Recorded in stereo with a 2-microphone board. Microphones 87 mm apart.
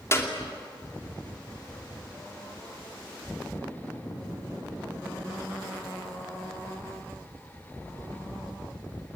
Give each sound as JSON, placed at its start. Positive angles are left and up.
{"t": 0.1, "sound": "a clap", "side_deg": 35, "distance_m": 2.5}